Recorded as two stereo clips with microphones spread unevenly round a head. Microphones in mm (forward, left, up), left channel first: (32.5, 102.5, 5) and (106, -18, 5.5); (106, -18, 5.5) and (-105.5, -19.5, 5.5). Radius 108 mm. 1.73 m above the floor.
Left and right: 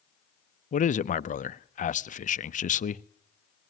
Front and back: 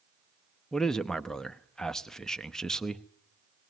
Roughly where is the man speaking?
Left.